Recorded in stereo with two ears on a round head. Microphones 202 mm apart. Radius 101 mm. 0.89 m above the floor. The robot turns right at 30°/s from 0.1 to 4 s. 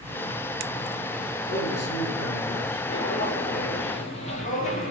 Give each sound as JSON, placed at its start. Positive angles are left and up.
{"t": 1.5, "sound": "a man speaking", "azimuth_deg": 45, "distance_m": 2.0}
{"t": 2.9, "sound": "footsteps", "side_deg": 50, "distance_m": 2.5}